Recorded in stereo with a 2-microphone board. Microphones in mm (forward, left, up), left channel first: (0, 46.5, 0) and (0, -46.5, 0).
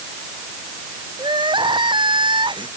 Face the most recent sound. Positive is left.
turn(degrees=-60)  # may be behind; listen again after turning